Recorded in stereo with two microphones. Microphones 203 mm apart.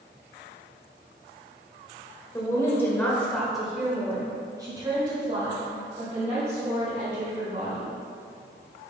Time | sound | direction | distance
2.3 | a woman speaking | 15° left (ahead or behind) | 1.6 m